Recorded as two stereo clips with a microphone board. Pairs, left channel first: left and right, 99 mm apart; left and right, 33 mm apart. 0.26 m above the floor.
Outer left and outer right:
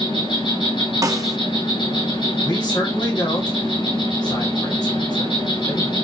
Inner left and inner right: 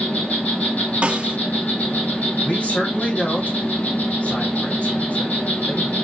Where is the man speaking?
50° left (ahead or behind), 2.5 m.